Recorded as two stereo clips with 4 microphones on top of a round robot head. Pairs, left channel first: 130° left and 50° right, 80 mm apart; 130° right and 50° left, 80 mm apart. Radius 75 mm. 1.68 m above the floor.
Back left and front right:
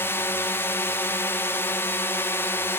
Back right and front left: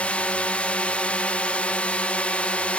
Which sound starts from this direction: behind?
A drone, at 0.0 s.